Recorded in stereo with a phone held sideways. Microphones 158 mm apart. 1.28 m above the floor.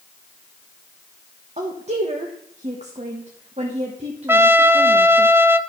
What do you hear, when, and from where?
1.6 s a woman speaking: 45° right (ahead or behind), 1.2 m
4.3 s a trumpet: 15° right (ahead or behind), 0.5 m